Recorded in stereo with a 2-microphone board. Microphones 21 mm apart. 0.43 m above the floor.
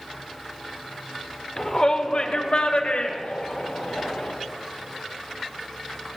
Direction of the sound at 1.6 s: 25° left (ahead or behind).